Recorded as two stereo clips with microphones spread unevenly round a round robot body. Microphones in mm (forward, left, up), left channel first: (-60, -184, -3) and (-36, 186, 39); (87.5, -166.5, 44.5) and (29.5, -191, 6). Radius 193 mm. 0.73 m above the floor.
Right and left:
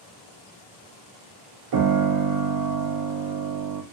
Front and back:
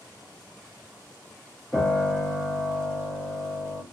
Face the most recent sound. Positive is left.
turn(degrees=115)